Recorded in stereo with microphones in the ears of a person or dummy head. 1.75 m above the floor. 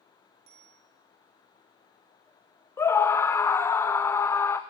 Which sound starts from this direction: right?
A bicycle bell, at 0.5 s.